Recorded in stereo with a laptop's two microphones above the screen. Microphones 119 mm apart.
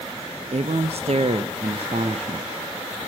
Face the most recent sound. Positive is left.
turn(degrees=-60)  # may be behind; listen again after turning